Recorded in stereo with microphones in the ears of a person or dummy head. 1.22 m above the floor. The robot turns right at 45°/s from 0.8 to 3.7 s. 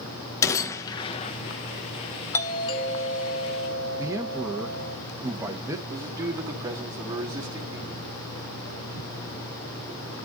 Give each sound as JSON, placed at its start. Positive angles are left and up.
{"t": 0.4, "sound": "a gunshot", "side_deg": 15, "distance_m": 1.3}
{"t": 2.3, "sound": "a doorbell", "azimuth_deg": 20, "distance_m": 1.5}
{"t": 4.0, "sound": "a man speaking", "side_deg": -15, "distance_m": 1.4}
{"t": 5.9, "sound": "a man speaking", "side_deg": -20, "distance_m": 2.5}